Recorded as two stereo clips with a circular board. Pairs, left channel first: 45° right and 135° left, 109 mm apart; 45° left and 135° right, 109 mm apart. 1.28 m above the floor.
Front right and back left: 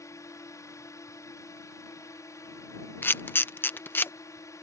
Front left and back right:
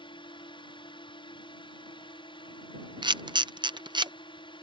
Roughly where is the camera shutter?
Right.